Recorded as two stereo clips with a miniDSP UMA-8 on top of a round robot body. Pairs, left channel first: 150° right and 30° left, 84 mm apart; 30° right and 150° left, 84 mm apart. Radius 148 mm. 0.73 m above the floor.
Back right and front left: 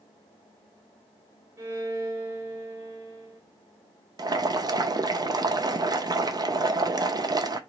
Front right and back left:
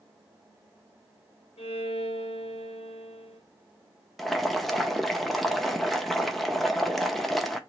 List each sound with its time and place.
1.6 s a violin: 30° right, 0.5 m
4.2 s boiling: 60° left, 0.6 m